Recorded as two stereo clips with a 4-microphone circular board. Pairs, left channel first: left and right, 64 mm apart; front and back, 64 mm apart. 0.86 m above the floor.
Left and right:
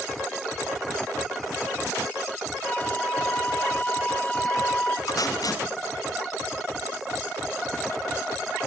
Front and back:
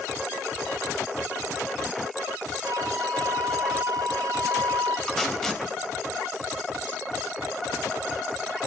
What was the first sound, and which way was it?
A flute, 160° left.